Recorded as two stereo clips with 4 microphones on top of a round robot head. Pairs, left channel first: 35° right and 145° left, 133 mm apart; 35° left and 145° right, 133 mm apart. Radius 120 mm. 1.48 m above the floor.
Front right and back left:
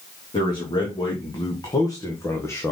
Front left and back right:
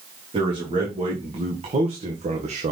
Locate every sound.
0.3 s a man speaking: 95° right, 3 m; by 2.7 s 110° right, 1.4 m